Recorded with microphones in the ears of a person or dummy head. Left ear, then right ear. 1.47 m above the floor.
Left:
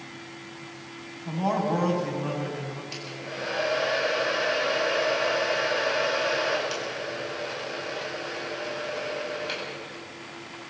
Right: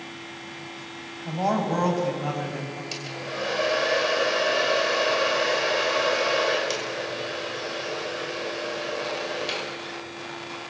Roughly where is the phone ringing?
I don't hear a phone ringing.